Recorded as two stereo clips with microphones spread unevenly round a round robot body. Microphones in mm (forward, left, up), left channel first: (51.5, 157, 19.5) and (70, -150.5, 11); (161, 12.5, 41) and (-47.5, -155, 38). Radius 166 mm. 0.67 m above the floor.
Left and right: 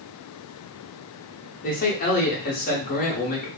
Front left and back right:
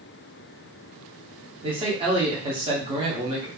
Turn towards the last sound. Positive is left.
turn(degrees=150)